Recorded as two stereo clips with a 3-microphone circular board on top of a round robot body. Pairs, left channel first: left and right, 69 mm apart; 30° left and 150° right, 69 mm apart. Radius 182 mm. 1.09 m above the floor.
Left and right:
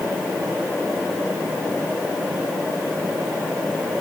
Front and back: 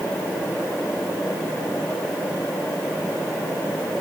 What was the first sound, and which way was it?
Only background noise.